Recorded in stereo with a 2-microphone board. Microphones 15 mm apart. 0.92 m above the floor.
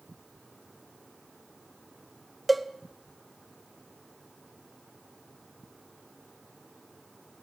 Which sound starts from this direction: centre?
A cowbell, at 2.5 s.